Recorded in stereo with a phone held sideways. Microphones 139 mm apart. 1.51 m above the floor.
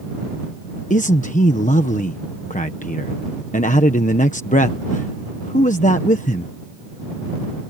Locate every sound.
0.9 s a man speaking: 65° left (ahead or behind)